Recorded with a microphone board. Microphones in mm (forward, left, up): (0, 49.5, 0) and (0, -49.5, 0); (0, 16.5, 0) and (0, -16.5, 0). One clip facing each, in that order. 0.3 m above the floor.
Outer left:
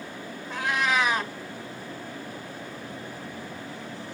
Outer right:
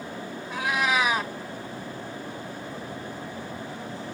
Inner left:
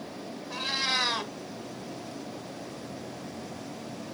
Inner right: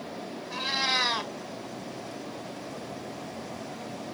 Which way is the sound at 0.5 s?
10° right (ahead or behind).